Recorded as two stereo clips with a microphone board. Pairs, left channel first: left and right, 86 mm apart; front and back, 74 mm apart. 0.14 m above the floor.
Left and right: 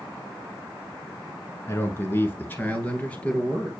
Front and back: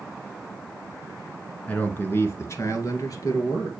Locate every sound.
1.7 s a man speaking: 55° left, 1.4 m; by 3.7 s 15° left, 2.5 m